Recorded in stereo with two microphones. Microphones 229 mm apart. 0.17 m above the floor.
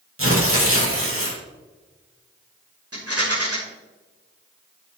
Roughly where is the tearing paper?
Right.